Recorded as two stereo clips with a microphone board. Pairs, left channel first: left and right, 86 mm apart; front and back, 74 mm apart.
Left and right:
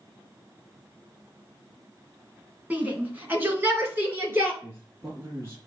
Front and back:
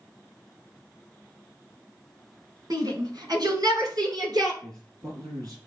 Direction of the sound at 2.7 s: 160° right.